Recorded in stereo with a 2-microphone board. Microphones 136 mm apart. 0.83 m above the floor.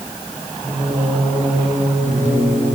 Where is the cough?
I don't hear a cough.